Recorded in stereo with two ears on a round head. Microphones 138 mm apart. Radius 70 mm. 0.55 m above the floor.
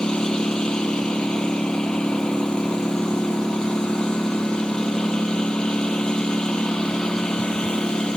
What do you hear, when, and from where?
0.0 s a lawn mower: 5° left (ahead or behind)